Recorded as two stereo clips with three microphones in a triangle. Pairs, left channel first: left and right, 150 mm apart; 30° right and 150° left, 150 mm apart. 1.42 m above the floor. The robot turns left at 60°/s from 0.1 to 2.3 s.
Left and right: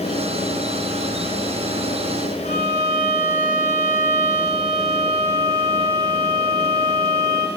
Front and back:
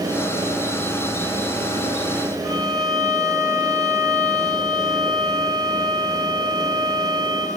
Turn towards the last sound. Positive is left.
turn(degrees=85)